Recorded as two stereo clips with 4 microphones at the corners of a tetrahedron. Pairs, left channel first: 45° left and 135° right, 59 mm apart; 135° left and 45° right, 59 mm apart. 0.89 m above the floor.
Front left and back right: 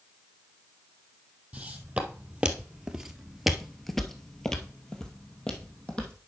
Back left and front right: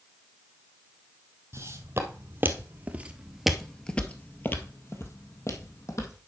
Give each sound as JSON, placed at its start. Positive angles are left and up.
{"t": 1.5, "sound": "footsteps", "azimuth_deg": -65, "distance_m": 1.5}